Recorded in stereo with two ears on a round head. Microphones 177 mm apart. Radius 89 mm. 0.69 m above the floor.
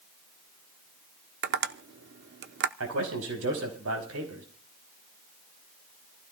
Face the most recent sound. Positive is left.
turn(degrees=-80)